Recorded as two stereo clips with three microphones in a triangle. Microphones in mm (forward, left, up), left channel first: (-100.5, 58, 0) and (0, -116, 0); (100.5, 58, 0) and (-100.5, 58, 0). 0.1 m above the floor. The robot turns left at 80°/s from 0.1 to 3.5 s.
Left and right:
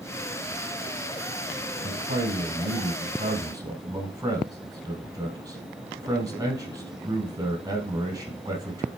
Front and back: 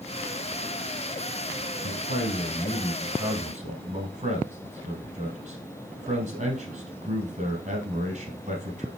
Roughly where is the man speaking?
Ahead.